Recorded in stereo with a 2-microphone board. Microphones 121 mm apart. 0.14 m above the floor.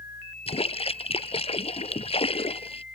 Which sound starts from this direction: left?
A splash, at 0.5 s.